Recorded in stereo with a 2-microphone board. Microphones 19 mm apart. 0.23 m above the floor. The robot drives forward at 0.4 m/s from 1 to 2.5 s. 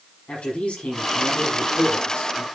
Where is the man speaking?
80° left, 9 m.